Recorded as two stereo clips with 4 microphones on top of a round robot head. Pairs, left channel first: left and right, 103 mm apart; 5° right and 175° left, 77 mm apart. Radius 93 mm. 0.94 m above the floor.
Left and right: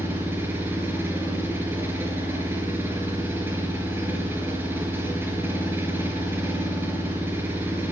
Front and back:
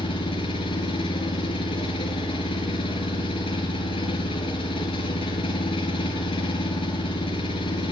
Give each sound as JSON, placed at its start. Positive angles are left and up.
{"t": 0.0, "sound": "an engine running", "azimuth_deg": -15, "distance_m": 4.5}